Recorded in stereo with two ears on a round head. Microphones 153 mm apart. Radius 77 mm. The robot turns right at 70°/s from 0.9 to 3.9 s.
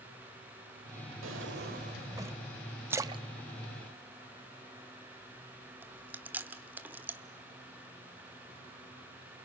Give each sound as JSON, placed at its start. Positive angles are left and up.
{"t": 1.2, "sound": "a drawer", "azimuth_deg": -90, "distance_m": 1.7}
{"t": 2.9, "sound": "a splash", "side_deg": -10, "distance_m": 0.6}
{"t": 5.8, "sound": "chewing", "side_deg": -10, "distance_m": 1.1}